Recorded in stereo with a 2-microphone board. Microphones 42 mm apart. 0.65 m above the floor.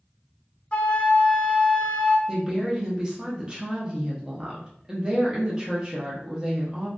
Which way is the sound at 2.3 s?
20° right (ahead or behind).